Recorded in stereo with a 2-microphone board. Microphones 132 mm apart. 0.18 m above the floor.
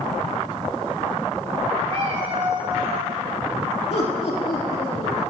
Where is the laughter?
55° left (ahead or behind), 6 m.